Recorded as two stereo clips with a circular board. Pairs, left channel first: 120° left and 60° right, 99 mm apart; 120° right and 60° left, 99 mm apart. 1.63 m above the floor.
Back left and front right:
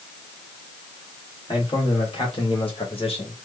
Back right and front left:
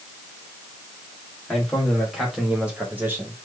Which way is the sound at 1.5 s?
155° left.